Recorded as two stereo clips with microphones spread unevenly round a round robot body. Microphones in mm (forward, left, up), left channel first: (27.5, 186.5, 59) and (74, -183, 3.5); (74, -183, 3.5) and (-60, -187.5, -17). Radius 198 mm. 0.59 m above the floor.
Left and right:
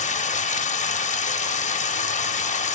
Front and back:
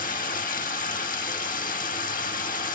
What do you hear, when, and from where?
0.0 s running water: 25° left, 1.0 m